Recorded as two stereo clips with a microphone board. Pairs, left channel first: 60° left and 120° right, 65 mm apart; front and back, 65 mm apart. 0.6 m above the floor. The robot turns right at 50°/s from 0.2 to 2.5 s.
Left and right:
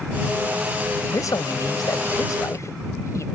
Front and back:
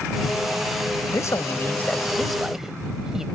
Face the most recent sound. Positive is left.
turn(degrees=95)